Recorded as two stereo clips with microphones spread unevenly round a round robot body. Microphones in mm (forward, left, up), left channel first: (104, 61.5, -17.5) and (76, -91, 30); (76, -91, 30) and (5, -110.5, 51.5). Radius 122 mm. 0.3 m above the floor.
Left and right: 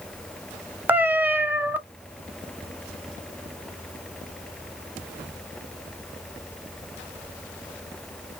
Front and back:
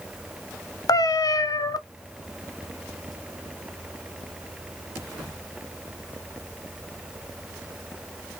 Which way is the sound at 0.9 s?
15° right.